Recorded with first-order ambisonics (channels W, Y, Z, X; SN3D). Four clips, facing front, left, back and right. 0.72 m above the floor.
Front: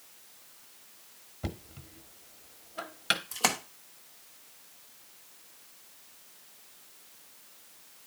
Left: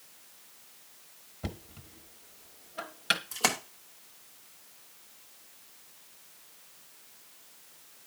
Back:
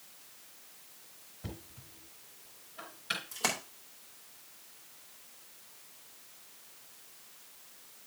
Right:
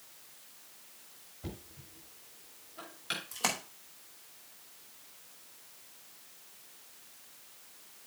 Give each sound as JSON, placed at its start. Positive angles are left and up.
{"t": 1.4, "sound": "knocking", "azimuth_deg": 40, "distance_m": 1.1}
{"t": 3.3, "sound": "a splash", "azimuth_deg": 35, "distance_m": 0.9}